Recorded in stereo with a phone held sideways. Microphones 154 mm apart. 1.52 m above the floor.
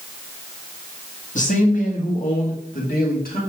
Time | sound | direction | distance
1.4 | a man speaking | 55° left (ahead or behind) | 2 m